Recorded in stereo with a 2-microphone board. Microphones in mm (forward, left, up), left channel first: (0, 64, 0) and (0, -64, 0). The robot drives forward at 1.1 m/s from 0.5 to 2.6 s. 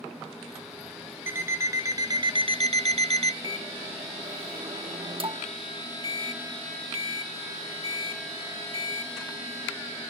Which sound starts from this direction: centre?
An alarm clock, at 1.3 s.